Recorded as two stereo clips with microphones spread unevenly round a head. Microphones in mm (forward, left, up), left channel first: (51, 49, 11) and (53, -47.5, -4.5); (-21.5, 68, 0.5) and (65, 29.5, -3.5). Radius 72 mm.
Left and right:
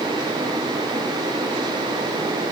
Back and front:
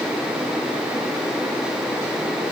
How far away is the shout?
I don't hear a shout.